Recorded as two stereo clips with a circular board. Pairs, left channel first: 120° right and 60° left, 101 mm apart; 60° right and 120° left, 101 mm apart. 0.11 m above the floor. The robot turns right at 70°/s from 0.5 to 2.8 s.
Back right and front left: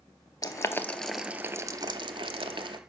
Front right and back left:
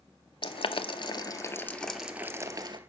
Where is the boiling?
70° right, 0.5 m; by 2.8 s 90° left, 0.5 m.